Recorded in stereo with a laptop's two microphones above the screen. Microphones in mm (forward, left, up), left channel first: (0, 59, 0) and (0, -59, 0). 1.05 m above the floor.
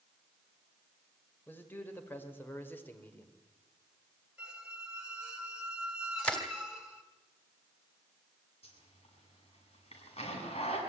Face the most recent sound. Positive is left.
turn(degrees=55)  # may be behind; listen again after turning